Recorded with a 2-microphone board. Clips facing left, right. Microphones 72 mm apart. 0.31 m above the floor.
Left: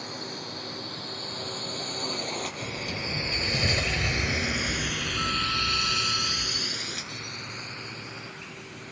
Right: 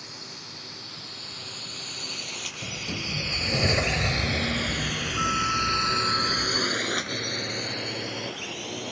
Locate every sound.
0.0 s a drone: 50° left (ahead or behind); by 8.9 s 80° right
2.6 s a sliding door: 25° right (ahead or behind)